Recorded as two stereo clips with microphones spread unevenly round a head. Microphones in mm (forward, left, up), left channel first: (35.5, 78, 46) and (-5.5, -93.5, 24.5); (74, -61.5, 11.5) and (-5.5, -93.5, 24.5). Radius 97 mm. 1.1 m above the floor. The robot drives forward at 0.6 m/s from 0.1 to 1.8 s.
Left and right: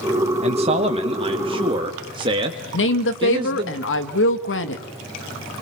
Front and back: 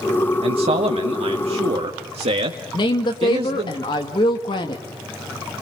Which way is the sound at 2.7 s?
65° left.